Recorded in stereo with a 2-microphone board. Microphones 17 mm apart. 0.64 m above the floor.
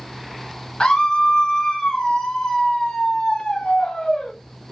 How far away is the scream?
About 0.9 m.